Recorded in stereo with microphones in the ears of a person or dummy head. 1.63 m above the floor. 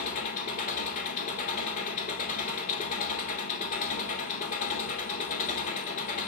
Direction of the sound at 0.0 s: 45° left (ahead or behind).